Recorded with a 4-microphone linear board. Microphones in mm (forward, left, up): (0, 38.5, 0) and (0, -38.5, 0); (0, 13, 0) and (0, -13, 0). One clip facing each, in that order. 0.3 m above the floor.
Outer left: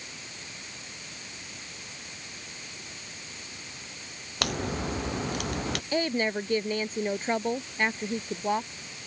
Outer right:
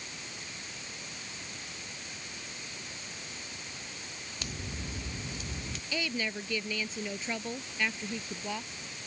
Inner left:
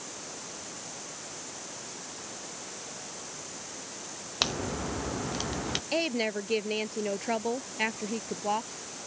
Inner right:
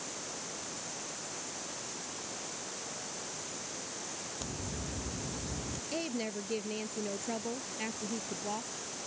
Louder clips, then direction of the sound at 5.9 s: Outer left 7 dB, inner left 7 dB; 45° left (ahead or behind).